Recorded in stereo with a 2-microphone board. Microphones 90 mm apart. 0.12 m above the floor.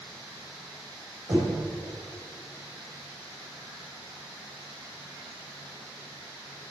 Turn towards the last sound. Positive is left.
turn(degrees=-50)  # may be behind; listen again after turning